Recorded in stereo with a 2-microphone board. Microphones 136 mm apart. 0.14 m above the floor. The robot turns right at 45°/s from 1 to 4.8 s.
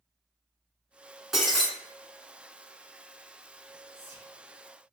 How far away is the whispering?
About 1.8 m.